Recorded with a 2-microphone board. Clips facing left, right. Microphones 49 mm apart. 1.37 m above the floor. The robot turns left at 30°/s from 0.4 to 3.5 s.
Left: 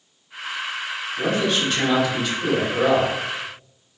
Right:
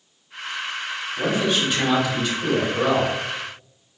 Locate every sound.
1.2 s a man speaking: 150° right, 1.8 m; by 3.1 s 150° left, 1.8 m